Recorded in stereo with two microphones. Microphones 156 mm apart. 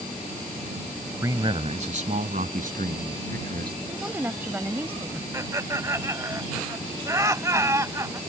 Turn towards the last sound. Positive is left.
turn(degrees=-20)  # may be behind; listen again after turning